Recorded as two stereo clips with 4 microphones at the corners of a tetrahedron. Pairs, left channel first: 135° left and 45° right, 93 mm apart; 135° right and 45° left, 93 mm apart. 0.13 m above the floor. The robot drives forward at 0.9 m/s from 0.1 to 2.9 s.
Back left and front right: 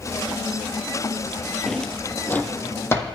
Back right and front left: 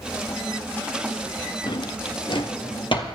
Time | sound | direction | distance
1.7 | a drawer | 135° right | 0.8 m